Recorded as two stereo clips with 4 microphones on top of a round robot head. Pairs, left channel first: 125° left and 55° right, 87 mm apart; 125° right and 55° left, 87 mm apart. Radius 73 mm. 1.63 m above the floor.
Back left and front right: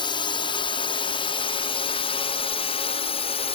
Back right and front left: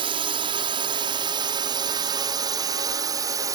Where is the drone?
90° left; by 3.5 s 110° left.